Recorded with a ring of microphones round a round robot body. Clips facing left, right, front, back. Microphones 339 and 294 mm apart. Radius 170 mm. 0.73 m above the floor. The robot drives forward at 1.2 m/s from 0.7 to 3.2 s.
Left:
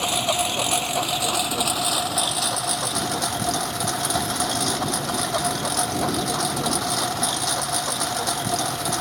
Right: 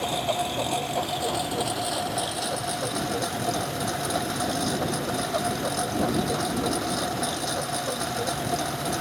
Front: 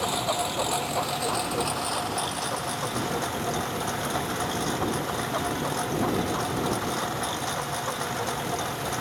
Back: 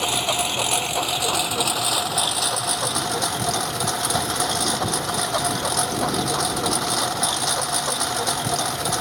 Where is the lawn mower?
145° left; by 9.0 s 155° left.